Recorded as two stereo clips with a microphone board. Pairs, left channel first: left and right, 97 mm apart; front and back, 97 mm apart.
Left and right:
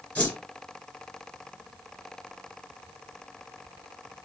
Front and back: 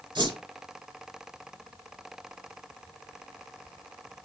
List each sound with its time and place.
0.1 s a whoosh: 165° left, 3 m